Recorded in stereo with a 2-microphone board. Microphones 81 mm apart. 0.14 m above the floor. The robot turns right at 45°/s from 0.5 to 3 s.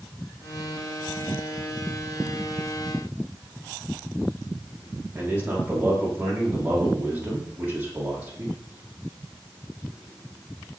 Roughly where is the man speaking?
Right.